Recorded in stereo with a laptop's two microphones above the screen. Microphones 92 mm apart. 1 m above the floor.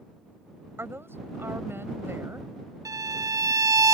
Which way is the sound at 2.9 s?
40° right (ahead or behind).